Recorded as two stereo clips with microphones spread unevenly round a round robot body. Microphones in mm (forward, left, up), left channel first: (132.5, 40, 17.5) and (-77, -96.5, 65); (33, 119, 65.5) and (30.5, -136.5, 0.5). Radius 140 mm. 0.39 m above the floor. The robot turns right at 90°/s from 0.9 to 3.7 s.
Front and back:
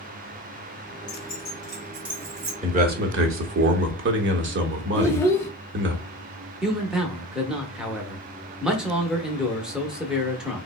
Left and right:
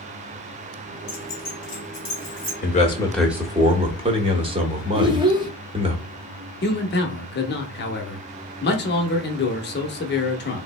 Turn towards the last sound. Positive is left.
turn(degrees=105)